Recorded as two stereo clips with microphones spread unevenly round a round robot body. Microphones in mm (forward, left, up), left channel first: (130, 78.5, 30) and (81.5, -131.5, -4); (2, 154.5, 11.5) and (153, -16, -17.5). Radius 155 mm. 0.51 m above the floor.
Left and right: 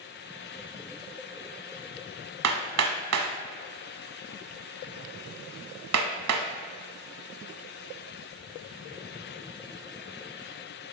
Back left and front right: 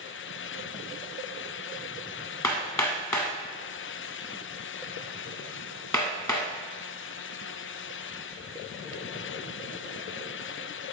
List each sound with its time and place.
2.4 s hammering: 150° right, 0.9 m